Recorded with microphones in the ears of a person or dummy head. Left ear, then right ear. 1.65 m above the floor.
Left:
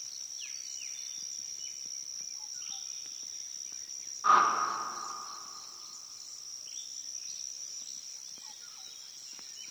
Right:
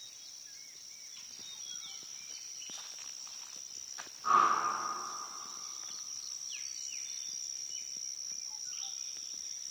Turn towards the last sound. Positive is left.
turn(degrees=50)  # may be behind; listen again after turning